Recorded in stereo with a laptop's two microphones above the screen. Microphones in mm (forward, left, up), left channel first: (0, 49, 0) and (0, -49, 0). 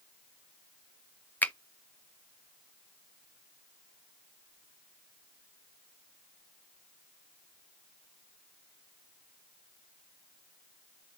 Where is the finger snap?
20° left (ahead or behind), 0.5 m.